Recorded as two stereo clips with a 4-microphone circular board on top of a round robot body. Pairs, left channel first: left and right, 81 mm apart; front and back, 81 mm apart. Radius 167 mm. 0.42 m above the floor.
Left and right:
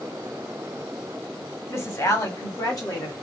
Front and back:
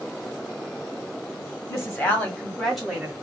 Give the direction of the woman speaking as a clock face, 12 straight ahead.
10 o'clock.